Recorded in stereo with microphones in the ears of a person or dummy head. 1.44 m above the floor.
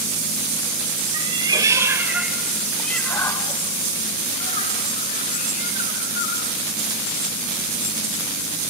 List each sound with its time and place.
1.1 s a cat meowing: 25° right (ahead or behind), 2 m; by 6.5 s 60° left (ahead or behind), 3 m